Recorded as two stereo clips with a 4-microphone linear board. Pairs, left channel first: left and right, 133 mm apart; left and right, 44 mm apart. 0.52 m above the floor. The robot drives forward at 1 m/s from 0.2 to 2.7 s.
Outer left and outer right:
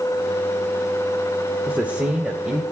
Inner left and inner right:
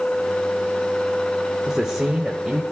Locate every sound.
1.7 s a man speaking: 15° right (ahead or behind), 1.2 m; by 2.6 s 10° right (ahead or behind), 2 m